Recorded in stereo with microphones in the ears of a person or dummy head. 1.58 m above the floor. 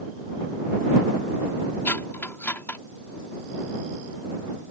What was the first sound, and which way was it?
Cutlery clinking, 10° left (ahead or behind).